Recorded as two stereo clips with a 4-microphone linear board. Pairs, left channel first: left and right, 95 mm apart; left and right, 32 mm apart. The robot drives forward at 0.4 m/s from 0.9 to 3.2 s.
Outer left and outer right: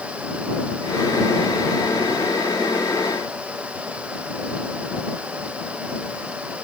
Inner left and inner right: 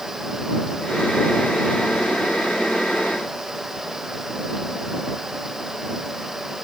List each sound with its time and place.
Only background noise.